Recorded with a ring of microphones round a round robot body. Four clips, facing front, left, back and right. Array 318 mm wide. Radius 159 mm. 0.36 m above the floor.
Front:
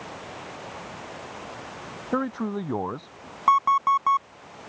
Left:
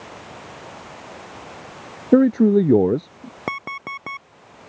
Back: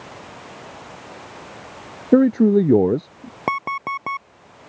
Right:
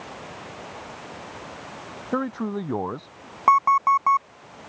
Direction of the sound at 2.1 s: 135° left.